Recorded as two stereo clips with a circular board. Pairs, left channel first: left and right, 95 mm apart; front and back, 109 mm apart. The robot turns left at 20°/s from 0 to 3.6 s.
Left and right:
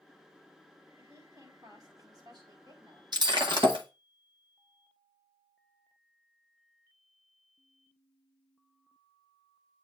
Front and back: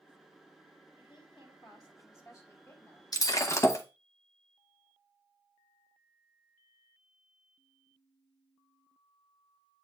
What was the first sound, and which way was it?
A woman speaking, 30° right.